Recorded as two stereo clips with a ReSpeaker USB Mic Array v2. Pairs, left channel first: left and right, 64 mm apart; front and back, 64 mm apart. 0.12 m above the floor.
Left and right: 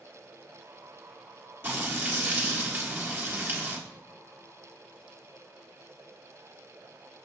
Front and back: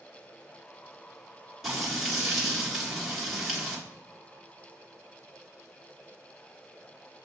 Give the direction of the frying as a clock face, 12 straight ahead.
3 o'clock.